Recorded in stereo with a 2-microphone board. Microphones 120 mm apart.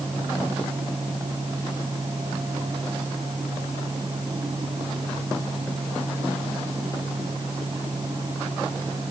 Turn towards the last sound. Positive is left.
No sound to turn to.